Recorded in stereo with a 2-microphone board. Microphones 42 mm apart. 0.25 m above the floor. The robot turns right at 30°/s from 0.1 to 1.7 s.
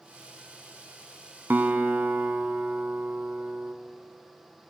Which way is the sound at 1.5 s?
55° right (ahead or behind).